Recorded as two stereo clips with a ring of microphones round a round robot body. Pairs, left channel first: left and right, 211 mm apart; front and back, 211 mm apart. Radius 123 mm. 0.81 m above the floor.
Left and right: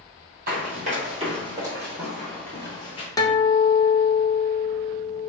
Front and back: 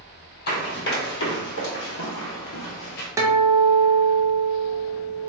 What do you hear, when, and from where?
0.5 s running footsteps: 35° right, 1.8 m; by 3.1 s 35° left, 1.1 m
3.2 s a guitar: 130° left, 0.9 m